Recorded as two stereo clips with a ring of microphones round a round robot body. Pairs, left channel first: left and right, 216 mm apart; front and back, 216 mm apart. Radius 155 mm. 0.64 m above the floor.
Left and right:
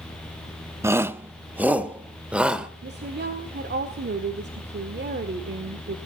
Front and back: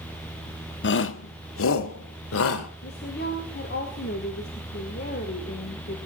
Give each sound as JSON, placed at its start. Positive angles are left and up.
{"t": 0.8, "sound": "a shout", "azimuth_deg": -15, "distance_m": 1.1}
{"t": 2.8, "sound": "a woman speaking", "azimuth_deg": -55, "distance_m": 1.9}